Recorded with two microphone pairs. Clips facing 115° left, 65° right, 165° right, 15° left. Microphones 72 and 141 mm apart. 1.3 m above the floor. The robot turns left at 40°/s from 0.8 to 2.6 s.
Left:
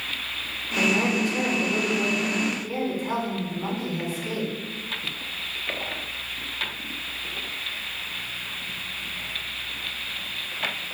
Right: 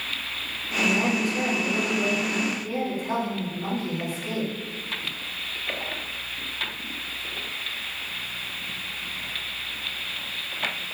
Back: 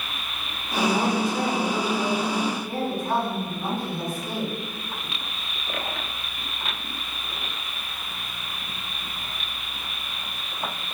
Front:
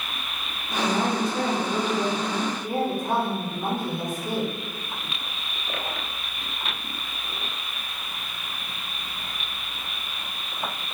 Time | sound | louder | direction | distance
0.8 | a woman speaking | left 1 dB, back 1 dB | 125° left | 1.5 m